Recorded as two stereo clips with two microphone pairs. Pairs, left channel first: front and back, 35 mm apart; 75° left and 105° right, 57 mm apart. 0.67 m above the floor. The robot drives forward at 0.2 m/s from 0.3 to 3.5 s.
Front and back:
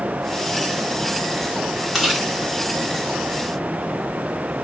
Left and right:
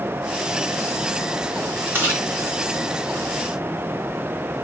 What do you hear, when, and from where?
1.9 s chewing: 95° right, 1.2 m; by 2.3 s 100° right, 1.2 m